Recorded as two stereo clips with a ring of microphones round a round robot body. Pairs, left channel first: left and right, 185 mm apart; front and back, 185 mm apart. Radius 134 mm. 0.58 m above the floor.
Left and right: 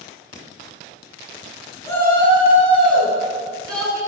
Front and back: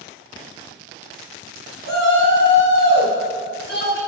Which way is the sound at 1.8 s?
15° left.